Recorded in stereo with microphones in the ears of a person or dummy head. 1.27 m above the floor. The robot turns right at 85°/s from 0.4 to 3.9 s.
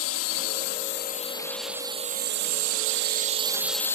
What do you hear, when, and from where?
0.0 s a drone: 75° left; by 4.0 s 10° left